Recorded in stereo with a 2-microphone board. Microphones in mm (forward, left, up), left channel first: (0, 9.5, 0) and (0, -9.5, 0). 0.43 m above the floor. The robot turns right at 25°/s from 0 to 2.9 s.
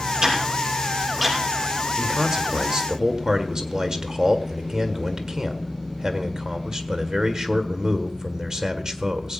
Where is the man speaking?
45° right (ahead or behind), 1.7 m; by 9.4 s 35° right (ahead or behind), 1.7 m.